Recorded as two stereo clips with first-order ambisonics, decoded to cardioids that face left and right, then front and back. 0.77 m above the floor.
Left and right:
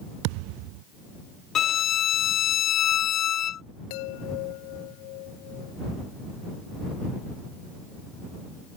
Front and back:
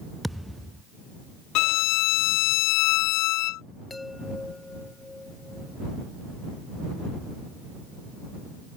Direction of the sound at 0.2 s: 90° right.